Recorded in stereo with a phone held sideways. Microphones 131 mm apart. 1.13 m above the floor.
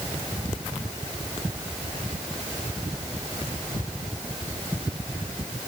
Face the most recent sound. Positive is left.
No sound to turn to.